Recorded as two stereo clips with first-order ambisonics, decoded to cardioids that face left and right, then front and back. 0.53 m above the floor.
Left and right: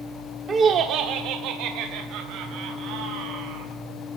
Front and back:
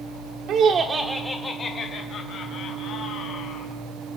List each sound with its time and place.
0.5 s laughter: 150° right, 1.1 m; by 3.7 s 50° right, 4 m